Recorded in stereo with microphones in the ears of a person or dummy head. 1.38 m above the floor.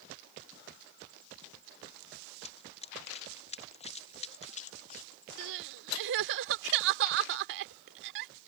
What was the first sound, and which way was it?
Running footsteps, 30° left (ahead or behind).